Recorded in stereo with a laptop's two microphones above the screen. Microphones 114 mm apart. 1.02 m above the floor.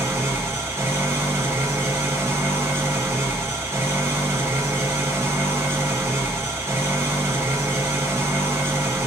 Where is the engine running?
20° right (ahead or behind), 1.1 m.